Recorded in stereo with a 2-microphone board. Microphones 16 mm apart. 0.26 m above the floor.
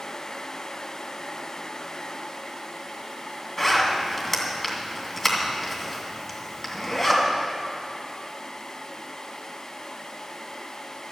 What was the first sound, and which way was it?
A zipper, 15° left (ahead or behind).